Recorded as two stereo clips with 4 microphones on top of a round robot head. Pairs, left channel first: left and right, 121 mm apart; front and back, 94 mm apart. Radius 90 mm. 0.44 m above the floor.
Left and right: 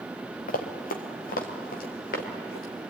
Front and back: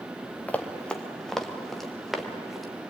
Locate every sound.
0.5 s running footsteps: 80° left, 2 m; by 2.6 s 95° left, 5.5 m